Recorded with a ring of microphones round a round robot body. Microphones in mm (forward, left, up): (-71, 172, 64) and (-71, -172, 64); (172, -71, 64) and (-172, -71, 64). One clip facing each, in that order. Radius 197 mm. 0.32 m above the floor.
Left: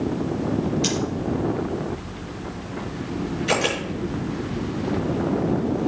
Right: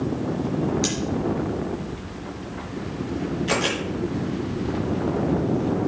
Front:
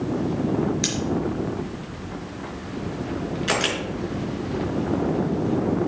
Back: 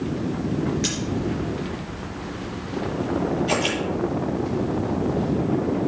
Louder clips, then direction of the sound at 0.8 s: Left 1 dB, even; 30° right.